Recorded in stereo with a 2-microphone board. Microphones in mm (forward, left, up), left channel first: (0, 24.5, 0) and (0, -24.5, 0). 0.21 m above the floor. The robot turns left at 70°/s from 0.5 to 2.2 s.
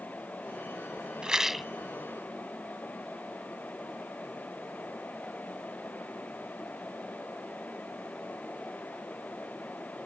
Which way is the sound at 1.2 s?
150° right.